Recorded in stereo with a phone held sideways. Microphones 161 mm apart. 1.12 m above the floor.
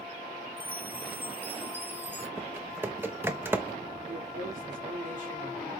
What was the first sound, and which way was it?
A chime, 15° right (ahead or behind).